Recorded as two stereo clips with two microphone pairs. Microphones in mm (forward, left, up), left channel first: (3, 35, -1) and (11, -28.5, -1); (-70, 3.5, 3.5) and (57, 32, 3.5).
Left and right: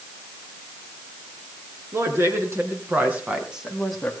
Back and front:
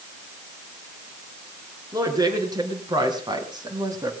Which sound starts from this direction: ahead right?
A woman speaking, at 1.9 s.